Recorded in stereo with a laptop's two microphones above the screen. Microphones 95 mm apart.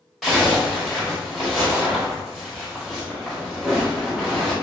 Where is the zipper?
Centre (ahead or behind), 1.6 m.